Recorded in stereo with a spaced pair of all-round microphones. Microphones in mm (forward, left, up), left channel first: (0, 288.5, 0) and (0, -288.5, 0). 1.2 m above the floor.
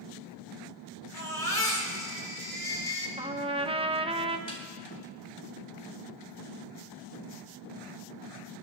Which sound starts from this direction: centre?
A trumpet, at 3.2 s.